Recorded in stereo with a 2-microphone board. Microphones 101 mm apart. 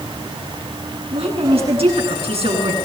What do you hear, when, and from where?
1.1 s a woman speaking: 70° right (ahead or behind), 8.5 m